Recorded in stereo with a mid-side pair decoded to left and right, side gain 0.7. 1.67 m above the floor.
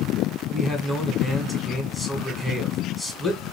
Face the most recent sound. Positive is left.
turn(degrees=10)